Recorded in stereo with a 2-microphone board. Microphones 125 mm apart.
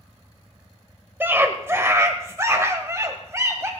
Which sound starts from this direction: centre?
A scream, at 1.2 s.